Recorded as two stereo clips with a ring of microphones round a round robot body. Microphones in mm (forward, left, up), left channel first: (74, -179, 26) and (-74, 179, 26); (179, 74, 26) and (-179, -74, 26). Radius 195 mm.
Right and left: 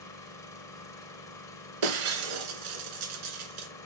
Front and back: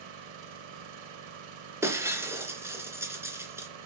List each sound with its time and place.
0.0 s an engine running: 150° right, 4.5 m
1.8 s breaking glass: 120° left, 2.5 m